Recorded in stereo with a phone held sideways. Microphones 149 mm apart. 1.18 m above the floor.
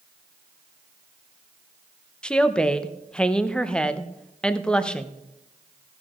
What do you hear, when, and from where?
2.2 s a woman speaking: 5° left (ahead or behind), 0.7 m